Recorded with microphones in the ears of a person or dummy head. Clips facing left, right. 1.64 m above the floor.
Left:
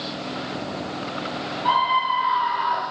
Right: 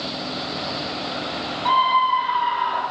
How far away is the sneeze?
No sneeze in this recording.